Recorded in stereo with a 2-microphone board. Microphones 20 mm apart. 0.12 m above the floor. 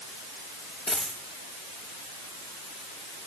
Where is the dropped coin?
30° left (ahead or behind), 6 m.